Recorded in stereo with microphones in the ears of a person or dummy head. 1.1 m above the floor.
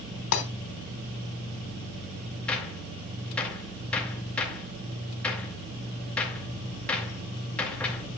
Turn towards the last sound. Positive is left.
turn(degrees=5)  # may be behind; listen again after turning